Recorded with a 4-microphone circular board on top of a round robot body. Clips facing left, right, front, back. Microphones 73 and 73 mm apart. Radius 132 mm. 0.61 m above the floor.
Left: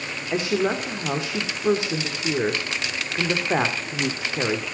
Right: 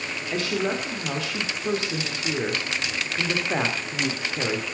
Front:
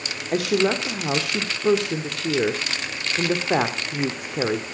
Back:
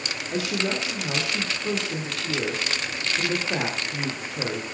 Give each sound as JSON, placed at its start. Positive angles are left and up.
{"t": 0.3, "sound": "a woman speaking", "azimuth_deg": 20, "distance_m": 2.0}